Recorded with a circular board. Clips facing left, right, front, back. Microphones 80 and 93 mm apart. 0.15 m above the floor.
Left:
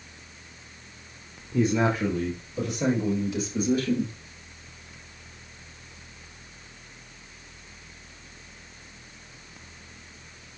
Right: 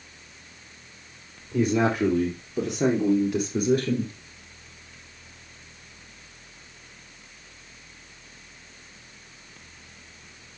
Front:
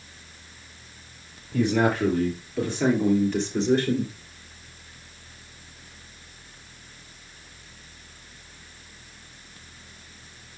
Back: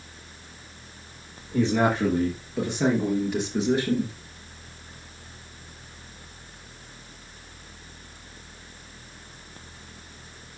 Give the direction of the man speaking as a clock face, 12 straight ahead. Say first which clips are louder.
Right 1 dB, even; 4 o'clock.